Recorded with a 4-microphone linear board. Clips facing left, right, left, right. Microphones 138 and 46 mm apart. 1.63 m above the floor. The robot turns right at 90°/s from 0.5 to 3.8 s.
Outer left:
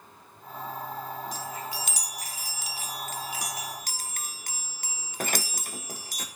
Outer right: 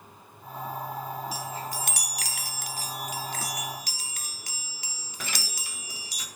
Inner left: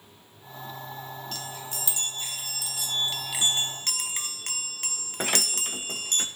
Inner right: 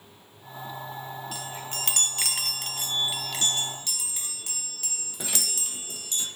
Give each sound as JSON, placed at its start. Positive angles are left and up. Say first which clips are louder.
{"t": 1.3, "sound": "a chime", "louder": "outer right 1 dB, inner right 2 dB", "azimuth_deg": -175, "distance_m": 0.6}